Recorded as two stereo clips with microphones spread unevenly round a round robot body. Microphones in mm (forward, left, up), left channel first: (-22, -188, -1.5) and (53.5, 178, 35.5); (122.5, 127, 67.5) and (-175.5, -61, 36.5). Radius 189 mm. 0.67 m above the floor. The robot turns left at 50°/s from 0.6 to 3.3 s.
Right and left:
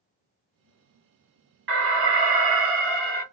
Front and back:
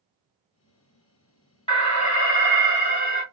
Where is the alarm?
105° left, 1.3 m; by 3.2 s 30° left, 1.3 m.